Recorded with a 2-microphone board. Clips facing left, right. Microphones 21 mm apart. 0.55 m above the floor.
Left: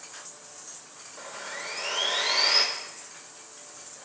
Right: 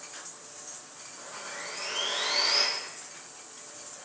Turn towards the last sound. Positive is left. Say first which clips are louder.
# left 3 dB
turn(degrees=70)  # may be behind; listen again after turning